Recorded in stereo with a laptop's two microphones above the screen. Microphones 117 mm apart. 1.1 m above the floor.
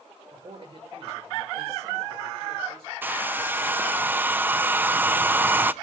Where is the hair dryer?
15° right (ahead or behind), 0.5 m.